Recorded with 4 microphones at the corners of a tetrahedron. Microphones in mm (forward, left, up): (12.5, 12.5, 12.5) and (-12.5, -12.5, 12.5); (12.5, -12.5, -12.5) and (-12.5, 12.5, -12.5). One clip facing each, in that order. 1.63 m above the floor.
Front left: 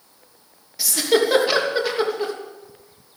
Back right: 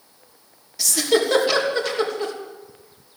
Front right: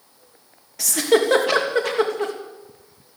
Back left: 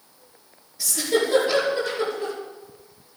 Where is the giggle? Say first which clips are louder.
Front left 1 dB, front right 5 dB; 35° right, 3 m.